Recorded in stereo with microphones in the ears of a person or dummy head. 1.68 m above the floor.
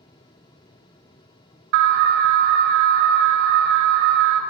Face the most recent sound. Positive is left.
turn(degrees=-65)  # may be behind; listen again after turning